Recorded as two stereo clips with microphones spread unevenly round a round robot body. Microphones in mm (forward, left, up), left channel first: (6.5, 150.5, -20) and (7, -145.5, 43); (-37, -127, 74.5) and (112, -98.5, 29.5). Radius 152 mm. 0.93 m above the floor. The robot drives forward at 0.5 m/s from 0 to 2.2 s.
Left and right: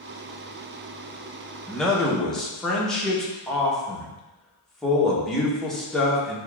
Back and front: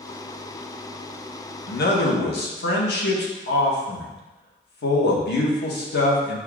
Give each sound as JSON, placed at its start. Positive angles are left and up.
{"t": 1.7, "sound": "a man speaking", "azimuth_deg": 170, "distance_m": 0.6}